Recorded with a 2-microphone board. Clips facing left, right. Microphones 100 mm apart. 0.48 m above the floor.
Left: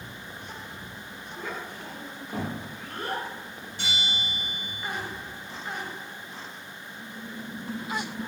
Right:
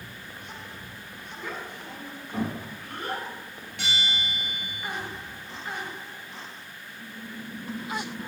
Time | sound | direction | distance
1.4 | a child speaking | 40° left (ahead or behind) | 1.2 m
3.8 | a bell | 70° right (ahead or behind) | 1.6 m